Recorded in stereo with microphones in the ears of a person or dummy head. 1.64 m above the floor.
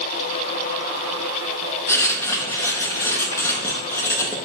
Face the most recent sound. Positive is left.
turn(degrees=15)  # may be behind; listen again after turning